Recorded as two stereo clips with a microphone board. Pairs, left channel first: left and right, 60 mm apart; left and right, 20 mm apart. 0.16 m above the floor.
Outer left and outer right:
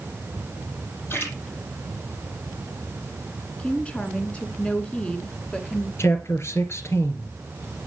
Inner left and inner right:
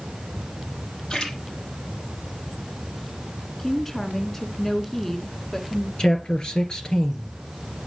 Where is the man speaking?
45° left (ahead or behind), 3 m.